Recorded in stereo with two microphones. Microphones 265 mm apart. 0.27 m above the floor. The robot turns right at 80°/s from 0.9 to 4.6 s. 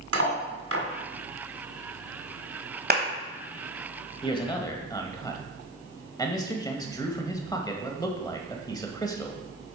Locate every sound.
0.1 s cutlery clinking: 60° right (ahead or behind), 1.4 m
2.9 s a clap: 40° right (ahead or behind), 1.2 m; by 3.0 s 35° right (ahead or behind), 1.2 m
4.2 s a man speaking: 20° left (ahead or behind), 0.9 m; by 9.4 s 15° left (ahead or behind), 0.9 m